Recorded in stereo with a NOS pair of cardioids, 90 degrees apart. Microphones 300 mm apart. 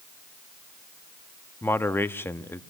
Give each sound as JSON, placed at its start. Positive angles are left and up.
{"t": 1.6, "sound": "a man speaking", "azimuth_deg": 5, "distance_m": 1.4}